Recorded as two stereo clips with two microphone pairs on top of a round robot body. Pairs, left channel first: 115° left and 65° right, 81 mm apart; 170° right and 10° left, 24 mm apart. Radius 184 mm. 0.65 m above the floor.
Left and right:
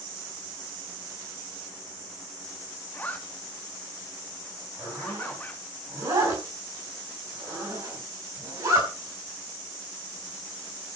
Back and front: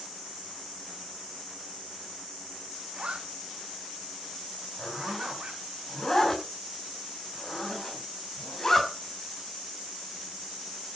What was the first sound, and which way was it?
A zipper, 40° left.